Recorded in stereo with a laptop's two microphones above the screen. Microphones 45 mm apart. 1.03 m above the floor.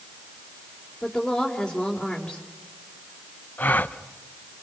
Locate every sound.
1.0 s a woman speaking: 10° left (ahead or behind), 3 m
3.6 s a gasp: 45° left (ahead or behind), 0.7 m